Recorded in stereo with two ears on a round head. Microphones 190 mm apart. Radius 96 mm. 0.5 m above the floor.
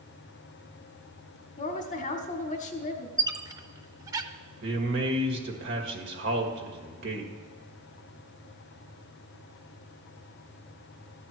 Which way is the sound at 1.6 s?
35° left (ahead or behind).